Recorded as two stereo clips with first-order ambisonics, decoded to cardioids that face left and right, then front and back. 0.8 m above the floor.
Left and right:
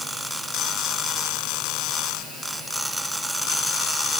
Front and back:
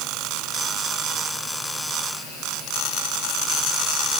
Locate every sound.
Only background noise.